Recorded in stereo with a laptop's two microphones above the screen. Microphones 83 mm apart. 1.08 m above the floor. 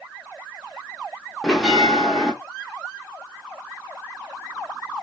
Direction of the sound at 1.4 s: 5° right (ahead or behind).